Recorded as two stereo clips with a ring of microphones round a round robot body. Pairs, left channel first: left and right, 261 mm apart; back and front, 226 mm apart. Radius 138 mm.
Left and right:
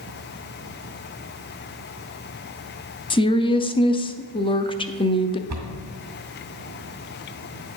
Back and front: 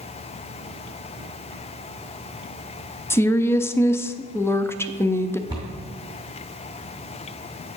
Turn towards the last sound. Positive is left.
turn(degrees=-70)